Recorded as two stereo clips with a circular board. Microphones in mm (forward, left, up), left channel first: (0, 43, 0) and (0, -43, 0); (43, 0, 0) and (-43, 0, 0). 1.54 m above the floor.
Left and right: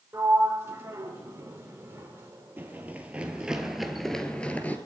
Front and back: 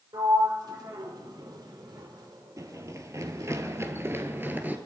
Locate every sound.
0.1 s a sliding door: 150° right, 3 m
2.6 s running footsteps: 150° right, 2 m; by 4.8 s 135° left, 1.7 m